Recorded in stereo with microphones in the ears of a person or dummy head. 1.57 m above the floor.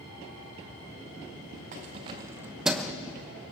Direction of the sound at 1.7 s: 40° right (ahead or behind).